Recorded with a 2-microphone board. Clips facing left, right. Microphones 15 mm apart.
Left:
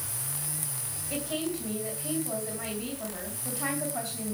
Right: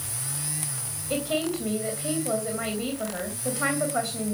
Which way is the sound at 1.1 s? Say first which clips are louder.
Right 6 dB; 70° right (ahead or behind).